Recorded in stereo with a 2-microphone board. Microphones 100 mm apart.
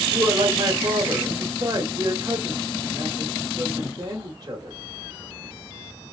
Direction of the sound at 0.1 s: 40° right (ahead or behind).